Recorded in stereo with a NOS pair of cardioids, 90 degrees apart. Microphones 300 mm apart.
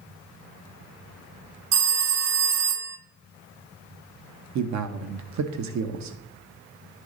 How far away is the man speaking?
About 1.0 m.